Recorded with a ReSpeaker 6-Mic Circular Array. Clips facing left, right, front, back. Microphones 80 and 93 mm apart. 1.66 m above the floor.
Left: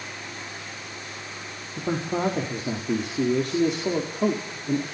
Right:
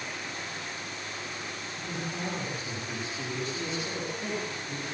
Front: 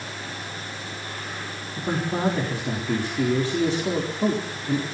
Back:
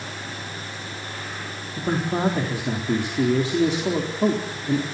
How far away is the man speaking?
About 4 m.